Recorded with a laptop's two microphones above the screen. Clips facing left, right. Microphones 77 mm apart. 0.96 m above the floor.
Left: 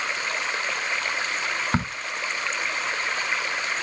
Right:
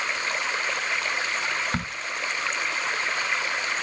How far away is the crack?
About 0.9 m.